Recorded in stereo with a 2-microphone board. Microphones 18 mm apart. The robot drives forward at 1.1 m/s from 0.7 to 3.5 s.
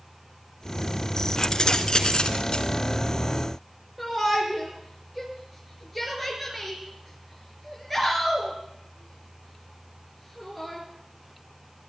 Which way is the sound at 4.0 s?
Centre (ahead or behind).